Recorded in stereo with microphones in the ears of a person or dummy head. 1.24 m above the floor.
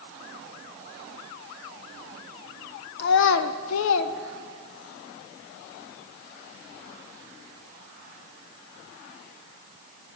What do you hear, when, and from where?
3.0 s a child speaking: 55° left (ahead or behind), 0.7 m; by 5.0 s 35° left (ahead or behind), 1.0 m